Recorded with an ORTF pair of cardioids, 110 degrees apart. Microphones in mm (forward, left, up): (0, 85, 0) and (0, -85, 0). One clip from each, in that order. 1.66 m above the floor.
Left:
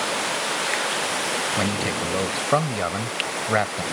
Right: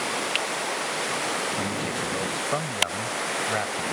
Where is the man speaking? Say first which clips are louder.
Left 4 dB; 40° left.